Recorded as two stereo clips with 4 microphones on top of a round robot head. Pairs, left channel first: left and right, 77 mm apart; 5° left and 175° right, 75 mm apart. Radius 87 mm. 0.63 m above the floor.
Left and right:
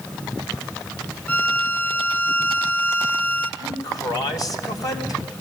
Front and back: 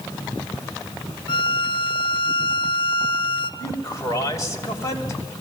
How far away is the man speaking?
About 3.5 m.